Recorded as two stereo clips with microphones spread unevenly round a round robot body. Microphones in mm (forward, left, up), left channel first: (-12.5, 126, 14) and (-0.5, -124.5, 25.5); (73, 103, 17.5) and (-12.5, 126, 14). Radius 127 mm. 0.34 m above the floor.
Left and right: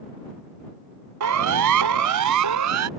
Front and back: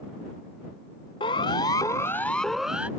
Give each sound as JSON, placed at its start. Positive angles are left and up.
{"t": 1.2, "sound": "a siren", "azimuth_deg": -65}